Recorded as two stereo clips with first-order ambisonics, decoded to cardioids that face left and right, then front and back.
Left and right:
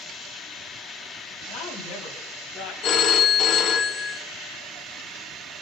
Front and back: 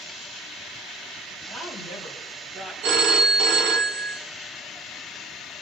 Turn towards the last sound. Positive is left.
turn(degrees=145)